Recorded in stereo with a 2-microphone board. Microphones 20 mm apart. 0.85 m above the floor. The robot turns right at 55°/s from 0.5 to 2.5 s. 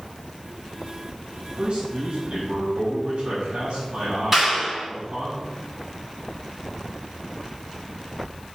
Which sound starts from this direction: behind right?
A man speaking, at 1.6 s.